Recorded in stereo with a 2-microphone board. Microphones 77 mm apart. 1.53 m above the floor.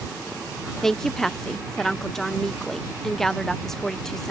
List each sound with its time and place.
0.8 s a woman speaking: 5° left (ahead or behind)